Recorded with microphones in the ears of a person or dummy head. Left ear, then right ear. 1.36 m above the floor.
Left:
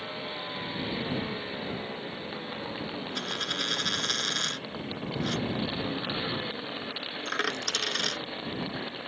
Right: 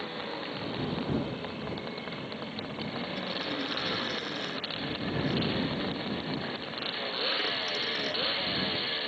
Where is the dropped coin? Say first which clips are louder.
Left 5 dB; 50° left (ahead or behind).